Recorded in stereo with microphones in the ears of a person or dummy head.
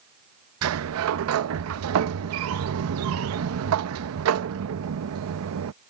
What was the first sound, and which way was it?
A sliding door, 80° right.